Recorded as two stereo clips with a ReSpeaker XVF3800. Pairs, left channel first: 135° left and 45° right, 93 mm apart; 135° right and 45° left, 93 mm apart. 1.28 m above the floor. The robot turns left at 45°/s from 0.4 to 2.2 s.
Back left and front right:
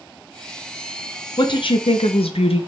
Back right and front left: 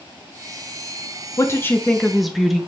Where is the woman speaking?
170° left, 0.6 m; by 2.6 s 135° left, 0.6 m.